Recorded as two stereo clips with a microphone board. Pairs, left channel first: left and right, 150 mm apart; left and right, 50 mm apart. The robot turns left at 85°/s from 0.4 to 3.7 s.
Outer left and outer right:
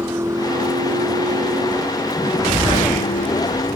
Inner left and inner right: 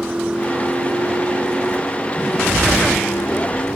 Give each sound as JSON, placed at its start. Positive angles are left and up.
{"t": 0.0, "sound": "a vehicle", "side_deg": -15}